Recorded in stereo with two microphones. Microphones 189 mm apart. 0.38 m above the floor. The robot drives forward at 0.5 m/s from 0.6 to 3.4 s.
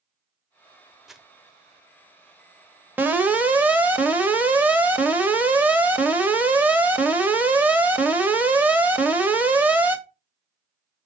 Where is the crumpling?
Centre (ahead or behind), 0.8 m.